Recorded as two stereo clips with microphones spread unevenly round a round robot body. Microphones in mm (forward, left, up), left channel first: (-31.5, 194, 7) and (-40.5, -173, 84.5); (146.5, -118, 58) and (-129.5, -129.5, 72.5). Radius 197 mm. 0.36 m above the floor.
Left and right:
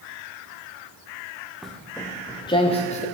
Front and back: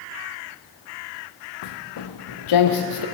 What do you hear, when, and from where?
1.6 s footsteps: 5° right, 1.9 m; by 3.0 s 15° left, 2.5 m